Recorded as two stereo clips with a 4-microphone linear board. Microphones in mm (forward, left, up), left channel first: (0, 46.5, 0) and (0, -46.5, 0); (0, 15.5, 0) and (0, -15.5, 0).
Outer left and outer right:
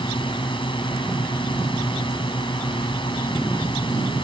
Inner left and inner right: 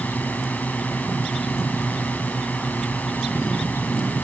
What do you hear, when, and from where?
0.0 s a drone: 65° left (ahead or behind)